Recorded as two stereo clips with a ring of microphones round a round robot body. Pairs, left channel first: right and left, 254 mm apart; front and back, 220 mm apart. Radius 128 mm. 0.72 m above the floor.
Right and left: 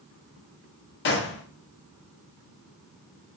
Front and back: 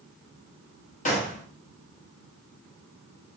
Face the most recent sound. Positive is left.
turn(degrees=-55)